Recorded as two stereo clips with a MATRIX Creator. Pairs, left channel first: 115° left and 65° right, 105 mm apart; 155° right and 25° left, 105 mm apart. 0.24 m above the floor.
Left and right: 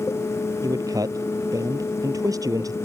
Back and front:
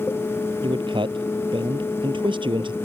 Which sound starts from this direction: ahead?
A man speaking, at 0.6 s.